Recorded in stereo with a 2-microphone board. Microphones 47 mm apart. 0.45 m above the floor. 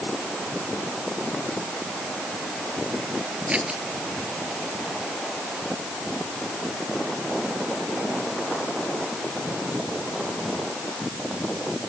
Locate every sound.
3.5 s scissors: 25° right (ahead or behind)